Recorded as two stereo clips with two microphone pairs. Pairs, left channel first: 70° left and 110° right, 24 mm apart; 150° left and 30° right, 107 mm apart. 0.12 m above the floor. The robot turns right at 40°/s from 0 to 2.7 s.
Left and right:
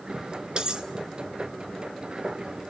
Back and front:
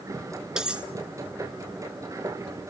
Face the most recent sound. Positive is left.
turn(degrees=-20)